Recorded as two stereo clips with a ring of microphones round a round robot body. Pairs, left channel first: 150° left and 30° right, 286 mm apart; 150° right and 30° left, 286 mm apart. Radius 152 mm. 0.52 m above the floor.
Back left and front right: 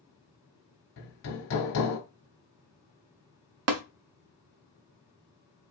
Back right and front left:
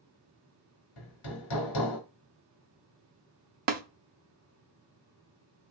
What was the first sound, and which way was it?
Hammering, 165° right.